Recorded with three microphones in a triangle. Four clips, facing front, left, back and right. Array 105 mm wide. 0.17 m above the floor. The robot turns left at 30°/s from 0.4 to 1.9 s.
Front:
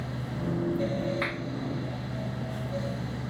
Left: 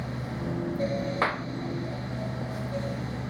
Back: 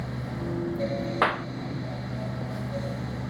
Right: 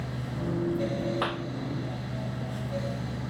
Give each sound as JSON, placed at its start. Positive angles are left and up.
{"t": 1.2, "sound": "a clap", "azimuth_deg": 165}